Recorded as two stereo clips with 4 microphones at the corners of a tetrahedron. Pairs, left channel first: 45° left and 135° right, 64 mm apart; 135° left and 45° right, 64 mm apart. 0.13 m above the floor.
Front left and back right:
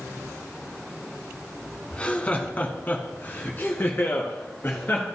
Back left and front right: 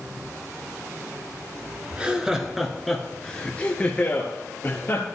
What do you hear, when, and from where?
1.9 s laughter: straight ahead, 1.3 m; by 5.0 s 95° left, 2.0 m